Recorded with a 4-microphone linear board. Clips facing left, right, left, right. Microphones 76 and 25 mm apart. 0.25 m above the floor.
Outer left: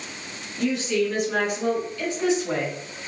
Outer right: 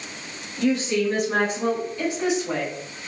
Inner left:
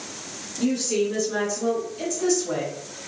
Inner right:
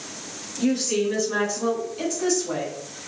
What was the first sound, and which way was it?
A woman speaking, 55° right (ahead or behind).